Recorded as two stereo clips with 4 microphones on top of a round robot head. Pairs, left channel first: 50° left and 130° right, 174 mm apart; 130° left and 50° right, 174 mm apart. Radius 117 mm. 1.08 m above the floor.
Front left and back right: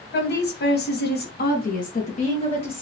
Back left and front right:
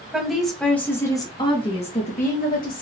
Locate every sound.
0.1 s a woman speaking: 35° left, 2 m; by 2.8 s 105° left, 1.9 m